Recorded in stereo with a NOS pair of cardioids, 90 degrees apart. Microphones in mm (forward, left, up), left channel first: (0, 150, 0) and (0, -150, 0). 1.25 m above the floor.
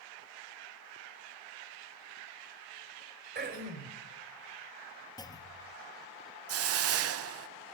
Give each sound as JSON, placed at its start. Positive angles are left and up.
{"t": 3.4, "sound": "throat clearing", "azimuth_deg": -35, "distance_m": 4.0}
{"t": 5.2, "sound": "a clunk", "azimuth_deg": 15, "distance_m": 1.3}
{"t": 6.5, "sound": "a hiss", "azimuth_deg": -50, "distance_m": 0.7}